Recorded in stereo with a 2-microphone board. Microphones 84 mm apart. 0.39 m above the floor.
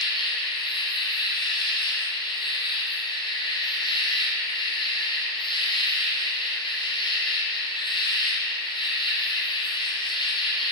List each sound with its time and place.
0.0 s an insect: 80° left, 1.2 m